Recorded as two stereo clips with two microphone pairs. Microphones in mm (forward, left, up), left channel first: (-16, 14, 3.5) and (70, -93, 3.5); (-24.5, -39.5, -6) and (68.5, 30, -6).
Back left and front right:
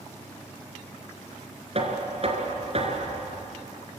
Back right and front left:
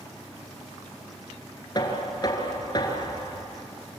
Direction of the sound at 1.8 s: 90° right.